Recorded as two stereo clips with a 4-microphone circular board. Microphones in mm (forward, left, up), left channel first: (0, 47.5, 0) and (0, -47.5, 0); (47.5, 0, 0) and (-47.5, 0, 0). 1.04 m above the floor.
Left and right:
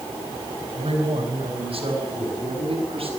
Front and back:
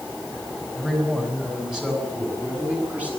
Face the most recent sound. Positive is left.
turn(degrees=-105)